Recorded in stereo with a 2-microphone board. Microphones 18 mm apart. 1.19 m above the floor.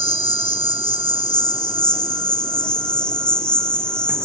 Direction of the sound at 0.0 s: 65° left (ahead or behind).